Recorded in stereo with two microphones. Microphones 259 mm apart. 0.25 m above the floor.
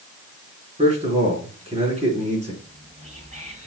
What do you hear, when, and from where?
0.8 s a man speaking: 25° right (ahead or behind), 3.5 m
2.6 s whispering: 30° right (ahead or behind), 1.0 m